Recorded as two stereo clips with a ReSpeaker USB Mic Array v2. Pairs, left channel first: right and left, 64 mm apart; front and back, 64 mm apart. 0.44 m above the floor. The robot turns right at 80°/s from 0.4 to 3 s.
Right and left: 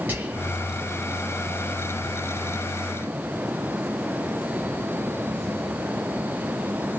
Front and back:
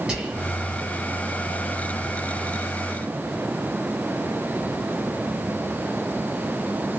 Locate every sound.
0.1 s whispering: 105° left, 1.2 m; by 0.5 s 115° left, 1.2 m